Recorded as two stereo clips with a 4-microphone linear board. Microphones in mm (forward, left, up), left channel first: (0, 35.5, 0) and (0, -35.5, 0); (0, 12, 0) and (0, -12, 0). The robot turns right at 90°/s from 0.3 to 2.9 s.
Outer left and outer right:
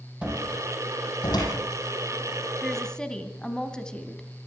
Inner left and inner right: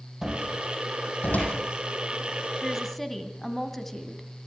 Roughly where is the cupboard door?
Centre.